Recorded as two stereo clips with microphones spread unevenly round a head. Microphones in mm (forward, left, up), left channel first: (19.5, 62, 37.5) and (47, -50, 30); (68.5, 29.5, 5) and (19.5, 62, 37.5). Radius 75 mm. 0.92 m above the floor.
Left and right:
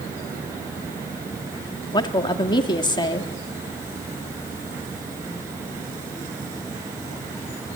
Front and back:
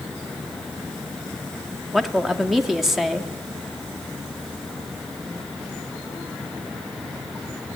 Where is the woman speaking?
55° left, 2 m.